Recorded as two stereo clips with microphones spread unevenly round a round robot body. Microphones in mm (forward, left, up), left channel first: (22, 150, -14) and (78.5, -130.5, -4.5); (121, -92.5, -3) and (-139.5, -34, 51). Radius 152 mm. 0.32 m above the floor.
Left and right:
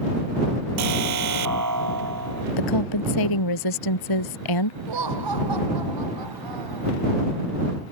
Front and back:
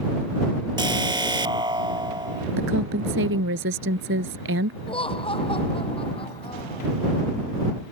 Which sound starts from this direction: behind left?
A woman speaking, at 2.6 s.